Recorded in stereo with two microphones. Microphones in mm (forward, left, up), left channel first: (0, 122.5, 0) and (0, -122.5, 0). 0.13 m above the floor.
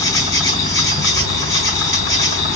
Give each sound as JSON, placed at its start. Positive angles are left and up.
{"t": 0.0, "sound": "an insect", "side_deg": 60, "distance_m": 1.3}